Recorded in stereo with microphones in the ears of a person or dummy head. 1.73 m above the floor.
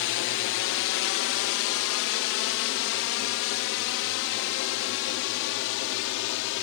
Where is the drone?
60° left (ahead or behind); by 6.6 s 70° left (ahead or behind).